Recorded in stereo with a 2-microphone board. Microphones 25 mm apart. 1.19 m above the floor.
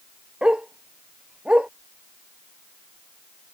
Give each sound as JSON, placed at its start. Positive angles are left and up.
{"t": 0.4, "sound": "a dog barking", "side_deg": -45}